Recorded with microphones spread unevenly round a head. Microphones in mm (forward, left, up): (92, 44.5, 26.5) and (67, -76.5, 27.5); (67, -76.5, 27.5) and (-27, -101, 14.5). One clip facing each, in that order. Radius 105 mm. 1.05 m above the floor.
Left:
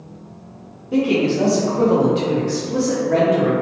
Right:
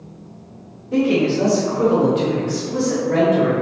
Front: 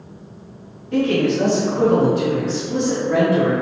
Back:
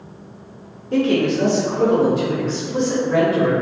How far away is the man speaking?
About 0.8 m.